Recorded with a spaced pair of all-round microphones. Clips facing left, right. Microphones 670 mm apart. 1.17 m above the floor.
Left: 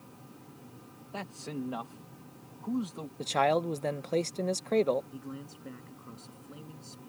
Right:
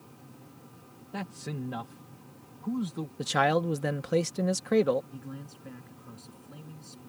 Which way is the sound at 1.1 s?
45° right (ahead or behind).